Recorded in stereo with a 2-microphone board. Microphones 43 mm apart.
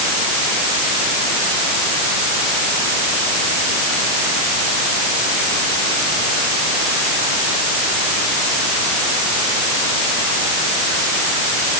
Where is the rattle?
No rattle in this recording.